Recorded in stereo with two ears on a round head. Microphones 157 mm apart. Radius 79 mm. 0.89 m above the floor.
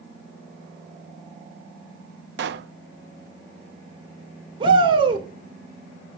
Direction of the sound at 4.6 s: 30° right (ahead or behind).